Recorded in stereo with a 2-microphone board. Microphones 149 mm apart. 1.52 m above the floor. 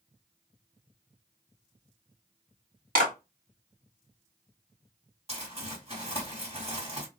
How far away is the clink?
No clink in this recording.